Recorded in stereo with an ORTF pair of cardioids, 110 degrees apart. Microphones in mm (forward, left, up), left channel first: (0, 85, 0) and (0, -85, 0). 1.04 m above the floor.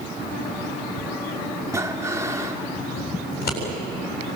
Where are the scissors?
65° left, 8.5 m.